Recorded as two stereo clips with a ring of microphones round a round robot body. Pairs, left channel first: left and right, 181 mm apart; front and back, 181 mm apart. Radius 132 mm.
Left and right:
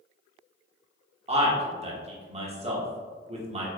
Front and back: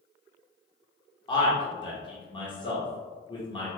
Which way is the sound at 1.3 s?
55° right.